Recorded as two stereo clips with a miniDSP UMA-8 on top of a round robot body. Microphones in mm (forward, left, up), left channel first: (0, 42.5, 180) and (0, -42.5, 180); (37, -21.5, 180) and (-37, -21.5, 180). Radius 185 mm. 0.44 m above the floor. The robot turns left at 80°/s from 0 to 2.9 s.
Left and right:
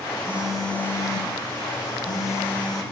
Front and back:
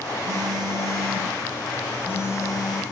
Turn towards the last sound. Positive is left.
turn(degrees=-5)